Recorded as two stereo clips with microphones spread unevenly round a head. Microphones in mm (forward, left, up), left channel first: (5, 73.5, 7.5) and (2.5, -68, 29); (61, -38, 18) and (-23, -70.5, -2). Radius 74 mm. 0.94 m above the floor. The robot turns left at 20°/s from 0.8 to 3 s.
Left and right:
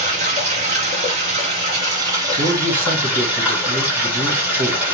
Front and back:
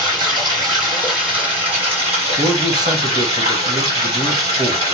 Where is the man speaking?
115° right, 1.0 m; by 4.8 s 130° right, 1.0 m.